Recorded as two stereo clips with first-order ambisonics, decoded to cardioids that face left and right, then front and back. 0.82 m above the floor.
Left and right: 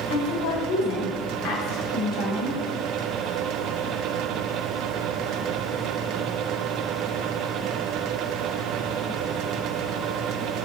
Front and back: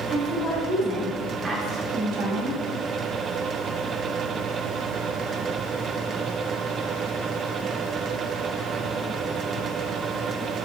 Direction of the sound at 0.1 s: 70° left.